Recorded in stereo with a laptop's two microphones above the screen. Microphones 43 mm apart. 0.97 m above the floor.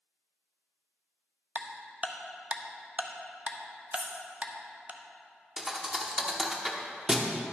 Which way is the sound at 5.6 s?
10° right (ahead or behind).